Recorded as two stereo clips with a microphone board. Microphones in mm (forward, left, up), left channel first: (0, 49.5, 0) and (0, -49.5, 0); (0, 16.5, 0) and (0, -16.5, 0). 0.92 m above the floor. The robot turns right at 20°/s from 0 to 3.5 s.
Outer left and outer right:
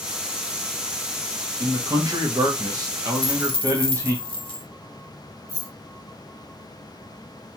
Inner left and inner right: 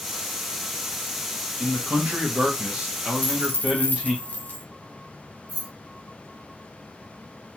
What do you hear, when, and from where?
1.6 s a man speaking: 85° right, 0.8 m; by 4.2 s 45° right, 0.8 m
3.1 s a dropped coin: 65° left (ahead or behind), 0.7 m; by 4.7 s 60° left (ahead or behind), 0.7 m
5.5 s keys jangling: 30° right (ahead or behind), 1.3 m